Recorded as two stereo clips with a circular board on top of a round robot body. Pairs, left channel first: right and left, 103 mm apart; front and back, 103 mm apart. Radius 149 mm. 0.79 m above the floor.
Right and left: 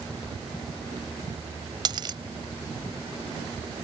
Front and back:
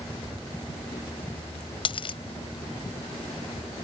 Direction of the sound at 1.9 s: 40° left.